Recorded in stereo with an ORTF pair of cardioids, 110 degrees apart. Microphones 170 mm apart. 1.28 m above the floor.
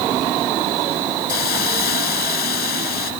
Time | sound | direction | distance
1.3 | a hiss | 65° left | ?